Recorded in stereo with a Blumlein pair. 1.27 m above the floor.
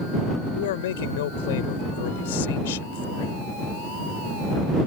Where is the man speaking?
55° left.